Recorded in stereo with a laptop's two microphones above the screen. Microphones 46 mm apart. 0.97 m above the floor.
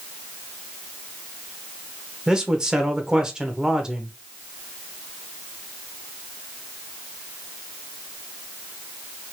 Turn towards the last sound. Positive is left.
turn(degrees=-15)  # may be behind; listen again after turning